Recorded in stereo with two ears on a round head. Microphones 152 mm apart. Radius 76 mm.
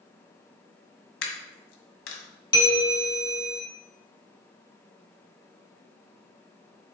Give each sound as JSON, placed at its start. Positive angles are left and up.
{"t": 1.2, "sound": "a dropped coin", "side_deg": 85, "distance_m": 1.7}
{"t": 2.5, "sound": "a bell", "side_deg": 30, "distance_m": 2.0}